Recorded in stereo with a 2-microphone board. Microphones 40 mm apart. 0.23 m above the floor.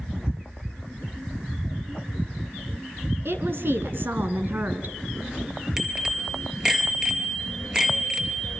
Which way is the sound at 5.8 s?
15° right (ahead or behind).